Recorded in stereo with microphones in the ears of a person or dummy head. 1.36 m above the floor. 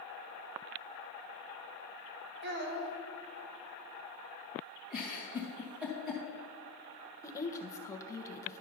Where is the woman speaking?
15° left (ahead or behind), 1.0 m.